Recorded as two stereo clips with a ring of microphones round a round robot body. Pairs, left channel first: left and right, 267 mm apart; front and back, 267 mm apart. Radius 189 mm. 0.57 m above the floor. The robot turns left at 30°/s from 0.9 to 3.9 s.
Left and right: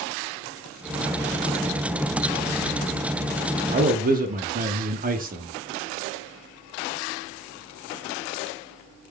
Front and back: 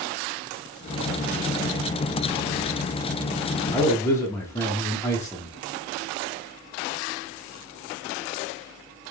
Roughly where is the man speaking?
Ahead right.